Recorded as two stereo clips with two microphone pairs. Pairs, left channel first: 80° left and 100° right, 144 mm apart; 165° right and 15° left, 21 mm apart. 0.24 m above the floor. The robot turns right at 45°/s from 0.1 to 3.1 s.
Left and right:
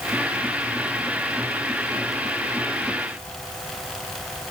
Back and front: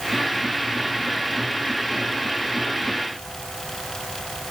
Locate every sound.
Only background noise.